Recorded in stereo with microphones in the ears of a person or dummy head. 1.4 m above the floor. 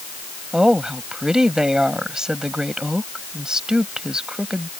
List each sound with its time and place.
0.5 s a woman speaking: 5° right (ahead or behind)